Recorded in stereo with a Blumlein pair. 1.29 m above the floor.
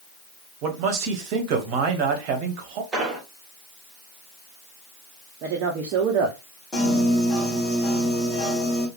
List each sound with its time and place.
0.6 s a man speaking: 40° right, 1.3 m
2.9 s an explosion: 15° right, 1.7 m
5.4 s a woman speaking: 40° right, 0.9 m
6.7 s a piano: 15° left, 3 m